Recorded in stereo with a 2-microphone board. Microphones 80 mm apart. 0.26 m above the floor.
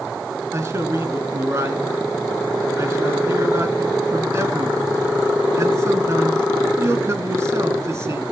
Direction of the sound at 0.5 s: 35° right (ahead or behind).